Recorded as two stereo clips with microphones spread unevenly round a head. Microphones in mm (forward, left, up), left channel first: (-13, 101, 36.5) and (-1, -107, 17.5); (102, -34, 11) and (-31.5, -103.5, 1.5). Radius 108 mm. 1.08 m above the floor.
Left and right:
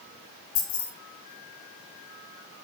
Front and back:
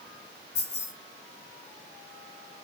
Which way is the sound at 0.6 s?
100° left.